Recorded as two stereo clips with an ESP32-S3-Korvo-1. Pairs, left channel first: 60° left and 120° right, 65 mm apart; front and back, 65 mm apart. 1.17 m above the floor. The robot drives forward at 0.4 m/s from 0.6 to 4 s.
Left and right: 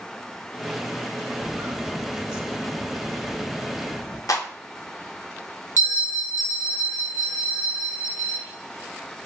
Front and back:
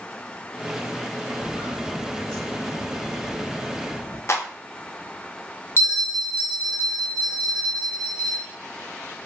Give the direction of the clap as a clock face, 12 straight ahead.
11 o'clock.